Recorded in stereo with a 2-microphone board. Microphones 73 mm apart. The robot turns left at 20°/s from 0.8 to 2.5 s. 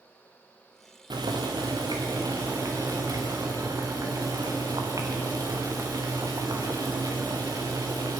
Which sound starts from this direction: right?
Boiling, at 1.1 s.